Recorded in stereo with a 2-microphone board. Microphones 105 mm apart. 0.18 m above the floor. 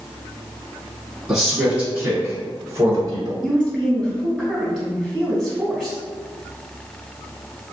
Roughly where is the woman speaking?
Centre.